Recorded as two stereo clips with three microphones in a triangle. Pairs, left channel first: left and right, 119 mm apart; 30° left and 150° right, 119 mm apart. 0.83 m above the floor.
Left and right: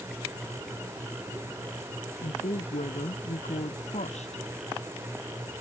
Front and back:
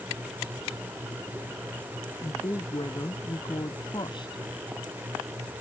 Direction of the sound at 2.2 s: 80° left.